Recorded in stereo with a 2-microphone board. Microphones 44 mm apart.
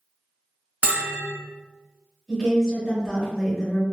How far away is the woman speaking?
About 1.1 m.